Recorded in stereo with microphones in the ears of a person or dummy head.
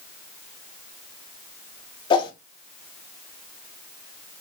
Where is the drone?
No drone in this recording.